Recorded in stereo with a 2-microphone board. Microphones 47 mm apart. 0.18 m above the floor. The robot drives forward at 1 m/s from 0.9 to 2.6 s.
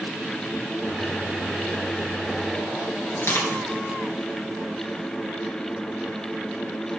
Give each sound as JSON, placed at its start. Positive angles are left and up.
{"t": 3.1, "sound": "crushing", "side_deg": 55, "distance_m": 3.0}